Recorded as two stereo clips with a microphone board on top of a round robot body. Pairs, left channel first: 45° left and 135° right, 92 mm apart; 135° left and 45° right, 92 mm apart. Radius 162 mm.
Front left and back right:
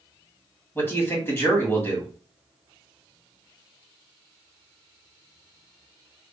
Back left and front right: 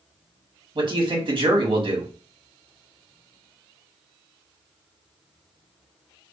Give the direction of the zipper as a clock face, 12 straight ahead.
I don't hear a zipper.